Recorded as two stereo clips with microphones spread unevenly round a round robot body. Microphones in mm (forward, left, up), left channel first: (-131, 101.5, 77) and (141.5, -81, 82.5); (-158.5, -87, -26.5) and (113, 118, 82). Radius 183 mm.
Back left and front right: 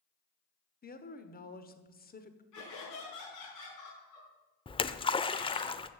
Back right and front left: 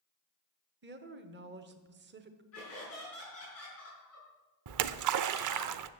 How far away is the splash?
About 0.6 m.